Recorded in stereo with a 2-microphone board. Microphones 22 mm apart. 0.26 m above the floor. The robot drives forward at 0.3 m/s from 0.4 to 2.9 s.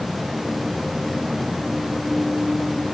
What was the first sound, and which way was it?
Only background noise.